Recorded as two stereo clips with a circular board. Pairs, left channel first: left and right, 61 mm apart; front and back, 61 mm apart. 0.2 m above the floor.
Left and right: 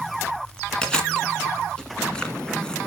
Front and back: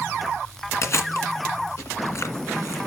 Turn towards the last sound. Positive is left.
turn(degrees=15)